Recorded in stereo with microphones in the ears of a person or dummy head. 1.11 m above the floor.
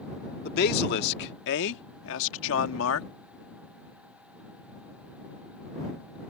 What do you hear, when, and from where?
0.5 s a man speaking: 50° left (ahead or behind); by 3.1 s 75° left (ahead or behind)